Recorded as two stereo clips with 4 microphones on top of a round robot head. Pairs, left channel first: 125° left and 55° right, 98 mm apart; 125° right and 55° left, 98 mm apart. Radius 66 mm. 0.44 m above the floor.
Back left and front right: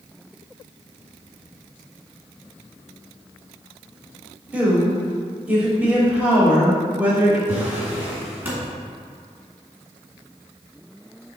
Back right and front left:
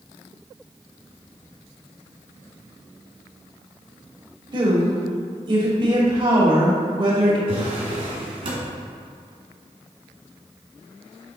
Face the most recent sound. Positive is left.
turn(degrees=20)